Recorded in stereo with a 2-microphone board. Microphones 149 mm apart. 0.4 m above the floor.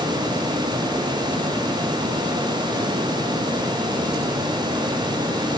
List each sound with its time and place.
Only background noise.